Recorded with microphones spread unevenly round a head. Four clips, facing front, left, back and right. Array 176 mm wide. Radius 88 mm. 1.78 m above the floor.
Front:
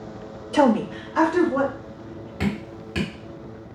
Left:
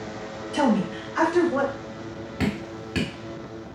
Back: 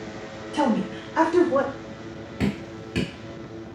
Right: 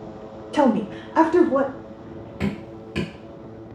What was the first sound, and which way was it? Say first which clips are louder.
A woman speaking: right 3 dB, front 5 dB; 30° right.